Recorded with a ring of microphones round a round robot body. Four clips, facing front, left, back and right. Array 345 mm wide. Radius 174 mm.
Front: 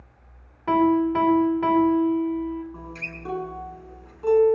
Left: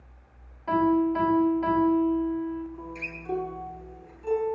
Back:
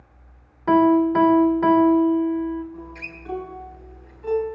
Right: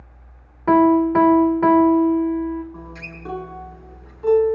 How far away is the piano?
About 2.5 m.